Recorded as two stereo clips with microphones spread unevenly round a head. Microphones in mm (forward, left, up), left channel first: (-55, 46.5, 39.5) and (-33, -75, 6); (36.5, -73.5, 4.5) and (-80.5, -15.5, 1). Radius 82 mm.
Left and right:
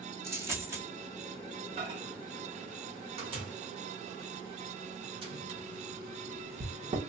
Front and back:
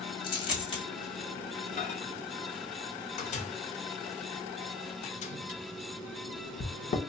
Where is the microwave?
50° right, 0.8 m.